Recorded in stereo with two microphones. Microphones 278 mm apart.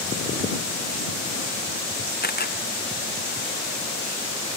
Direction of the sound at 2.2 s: 35° left (ahead or behind).